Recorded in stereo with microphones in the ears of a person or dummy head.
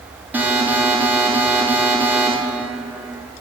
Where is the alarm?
10° right (ahead or behind), 5.5 m.